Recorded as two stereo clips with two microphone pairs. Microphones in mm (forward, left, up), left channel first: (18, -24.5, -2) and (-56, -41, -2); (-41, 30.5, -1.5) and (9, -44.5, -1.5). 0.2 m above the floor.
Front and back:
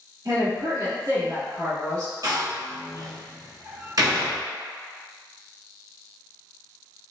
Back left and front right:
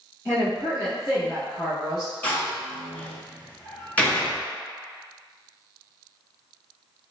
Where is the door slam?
165° right, 1.7 m.